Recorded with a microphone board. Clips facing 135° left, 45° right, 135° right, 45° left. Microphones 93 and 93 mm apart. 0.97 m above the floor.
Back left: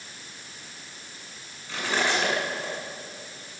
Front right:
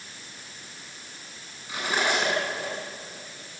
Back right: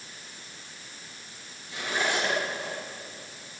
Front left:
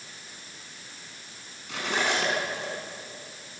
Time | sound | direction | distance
1.7 | cutlery clinking | 30° left | 7 m